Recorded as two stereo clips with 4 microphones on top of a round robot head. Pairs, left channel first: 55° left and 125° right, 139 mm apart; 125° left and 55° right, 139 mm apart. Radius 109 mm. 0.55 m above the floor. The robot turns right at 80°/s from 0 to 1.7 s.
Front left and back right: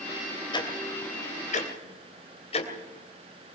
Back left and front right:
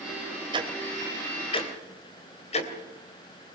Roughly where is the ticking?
Ahead.